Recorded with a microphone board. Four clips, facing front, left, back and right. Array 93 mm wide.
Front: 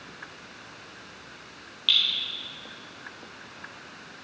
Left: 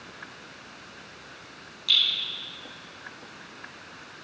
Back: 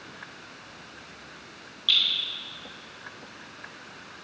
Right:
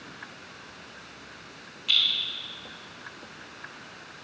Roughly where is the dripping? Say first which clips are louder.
Left 1 dB, even; ahead right.